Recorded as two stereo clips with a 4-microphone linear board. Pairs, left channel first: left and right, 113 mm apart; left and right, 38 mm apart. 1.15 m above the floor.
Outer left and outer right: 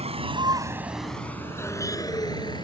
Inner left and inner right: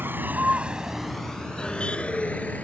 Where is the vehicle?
70° right (ahead or behind); by 2.6 s 40° left (ahead or behind).